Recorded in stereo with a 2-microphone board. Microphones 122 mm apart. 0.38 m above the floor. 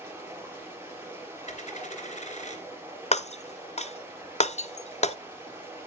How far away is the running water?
About 7 m.